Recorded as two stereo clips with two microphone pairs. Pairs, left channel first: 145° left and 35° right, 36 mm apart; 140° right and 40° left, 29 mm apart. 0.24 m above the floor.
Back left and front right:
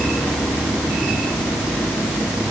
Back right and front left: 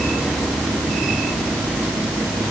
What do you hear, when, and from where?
Only background noise.